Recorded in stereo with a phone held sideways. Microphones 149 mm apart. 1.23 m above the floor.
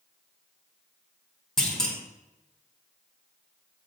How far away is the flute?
I don't hear a flute.